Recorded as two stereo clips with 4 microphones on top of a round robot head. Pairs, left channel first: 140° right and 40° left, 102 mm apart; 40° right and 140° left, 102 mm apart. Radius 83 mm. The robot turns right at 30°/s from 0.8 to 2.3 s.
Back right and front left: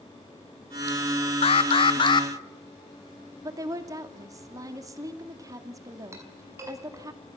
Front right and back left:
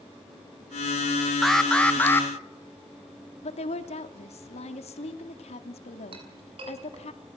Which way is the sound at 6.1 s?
100° left.